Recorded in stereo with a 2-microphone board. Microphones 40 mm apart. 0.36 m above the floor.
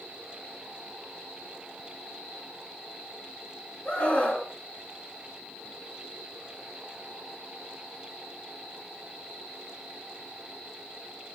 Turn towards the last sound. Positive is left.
turn(degrees=35)  # may be behind; listen again after turning